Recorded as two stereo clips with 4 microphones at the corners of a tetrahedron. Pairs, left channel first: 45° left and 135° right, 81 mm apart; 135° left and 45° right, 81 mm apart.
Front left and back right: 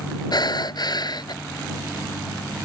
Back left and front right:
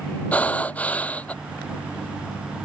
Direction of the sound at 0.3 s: 65° left.